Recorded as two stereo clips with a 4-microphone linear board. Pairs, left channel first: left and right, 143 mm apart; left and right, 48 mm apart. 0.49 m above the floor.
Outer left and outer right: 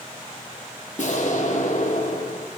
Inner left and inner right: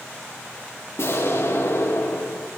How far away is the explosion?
About 3.5 m.